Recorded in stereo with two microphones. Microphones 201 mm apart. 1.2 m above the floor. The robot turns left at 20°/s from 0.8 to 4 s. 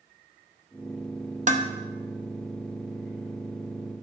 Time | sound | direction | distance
1.5 | dishes clattering | 35° right (ahead or behind) | 0.8 m